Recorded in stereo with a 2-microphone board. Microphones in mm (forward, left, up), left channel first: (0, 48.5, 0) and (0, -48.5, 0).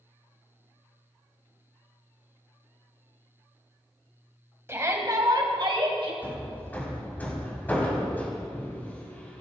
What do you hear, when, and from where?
4.7 s a shout: 25° right (ahead or behind), 1.9 m; by 6.1 s 65° right (ahead or behind), 2.5 m
6.2 s hammering: 20° left (ahead or behind), 1.9 m